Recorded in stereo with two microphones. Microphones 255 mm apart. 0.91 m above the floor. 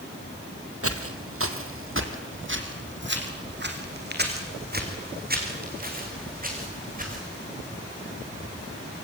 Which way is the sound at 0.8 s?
60° right (ahead or behind).